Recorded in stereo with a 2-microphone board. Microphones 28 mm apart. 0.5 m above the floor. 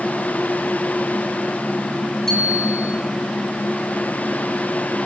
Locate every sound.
2.3 s a bicycle bell: 10° left (ahead or behind), 6.5 m